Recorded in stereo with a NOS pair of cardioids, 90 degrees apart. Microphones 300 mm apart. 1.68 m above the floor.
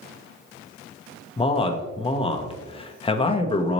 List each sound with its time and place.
1.4 s a man speaking: 20° left, 0.8 m